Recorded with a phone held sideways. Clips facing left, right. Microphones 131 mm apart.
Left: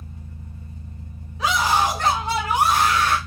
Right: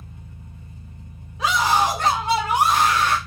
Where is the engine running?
35° left (ahead or behind), 1.2 m.